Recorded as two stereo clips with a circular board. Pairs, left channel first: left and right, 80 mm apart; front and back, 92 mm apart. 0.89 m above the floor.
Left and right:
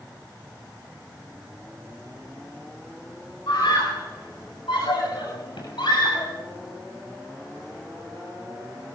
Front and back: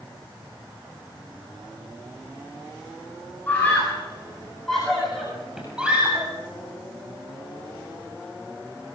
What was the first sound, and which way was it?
A scream, 70° left.